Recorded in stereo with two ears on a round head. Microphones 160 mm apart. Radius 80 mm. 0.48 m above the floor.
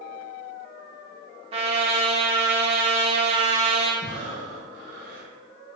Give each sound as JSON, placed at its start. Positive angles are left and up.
{"t": 1.5, "sound": "a trumpet", "side_deg": -35, "distance_m": 0.7}
{"t": 4.0, "sound": "breathing", "side_deg": 65, "distance_m": 1.8}